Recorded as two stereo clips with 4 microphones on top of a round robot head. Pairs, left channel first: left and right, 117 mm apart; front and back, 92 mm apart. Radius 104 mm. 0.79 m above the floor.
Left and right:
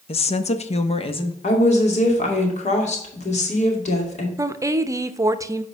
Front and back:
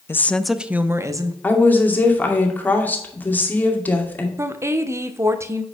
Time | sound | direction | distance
0.1 | a woman speaking | 60° left | 0.8 m
1.4 | a woman speaking | 70° left | 2.5 m
4.4 | a woman speaking | 140° right | 0.8 m